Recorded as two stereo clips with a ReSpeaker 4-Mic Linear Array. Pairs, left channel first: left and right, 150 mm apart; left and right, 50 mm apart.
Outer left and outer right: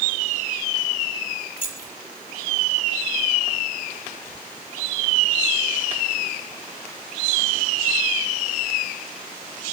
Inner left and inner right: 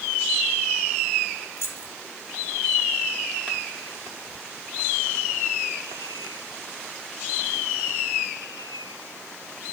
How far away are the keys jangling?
About 1.8 m.